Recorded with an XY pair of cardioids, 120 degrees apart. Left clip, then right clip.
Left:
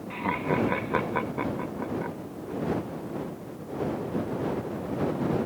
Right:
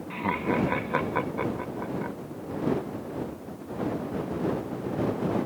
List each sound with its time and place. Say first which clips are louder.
0.1 s laughter: even; straight ahead